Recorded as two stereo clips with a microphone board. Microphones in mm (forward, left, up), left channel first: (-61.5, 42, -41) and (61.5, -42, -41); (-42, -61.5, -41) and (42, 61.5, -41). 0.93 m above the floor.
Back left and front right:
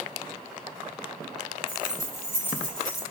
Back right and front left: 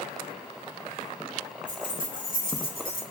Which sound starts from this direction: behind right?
Keys jangling, at 1.7 s.